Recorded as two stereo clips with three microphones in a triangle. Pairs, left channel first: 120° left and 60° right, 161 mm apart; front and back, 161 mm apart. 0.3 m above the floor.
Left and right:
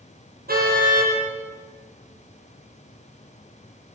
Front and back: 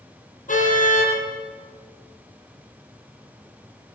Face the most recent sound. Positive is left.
turn(degrees=-35)